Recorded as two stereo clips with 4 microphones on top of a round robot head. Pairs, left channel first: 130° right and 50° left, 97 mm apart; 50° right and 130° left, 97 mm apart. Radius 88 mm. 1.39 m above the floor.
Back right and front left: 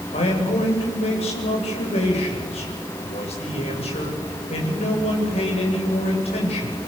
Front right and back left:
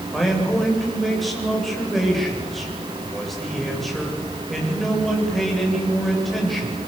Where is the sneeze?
I don't hear a sneeze.